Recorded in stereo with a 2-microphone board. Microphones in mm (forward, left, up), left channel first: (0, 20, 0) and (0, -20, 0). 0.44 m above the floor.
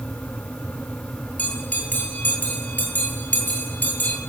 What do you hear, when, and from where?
1.4 s a bell: 45° left (ahead or behind), 9.5 m